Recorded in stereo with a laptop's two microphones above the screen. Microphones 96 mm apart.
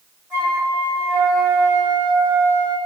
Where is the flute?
15° right (ahead or behind), 1.2 m.